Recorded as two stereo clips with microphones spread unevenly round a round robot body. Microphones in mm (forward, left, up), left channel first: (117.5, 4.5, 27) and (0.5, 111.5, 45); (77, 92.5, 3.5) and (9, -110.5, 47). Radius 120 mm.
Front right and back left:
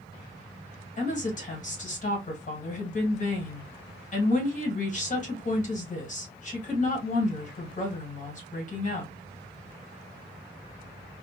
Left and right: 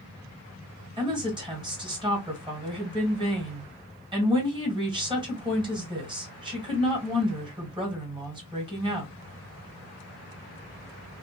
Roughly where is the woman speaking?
Ahead right.